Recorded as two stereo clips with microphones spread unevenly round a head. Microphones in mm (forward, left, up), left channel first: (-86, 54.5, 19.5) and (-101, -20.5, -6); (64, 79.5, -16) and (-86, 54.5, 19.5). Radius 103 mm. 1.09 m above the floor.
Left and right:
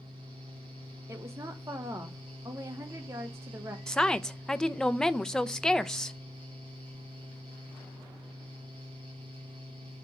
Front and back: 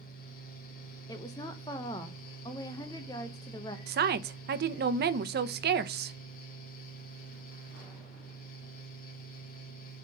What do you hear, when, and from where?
0.0 s a fan: 45° right, 1.0 m
1.1 s a woman speaking: 55° right, 0.8 m
3.9 s a woman speaking: 170° left, 0.8 m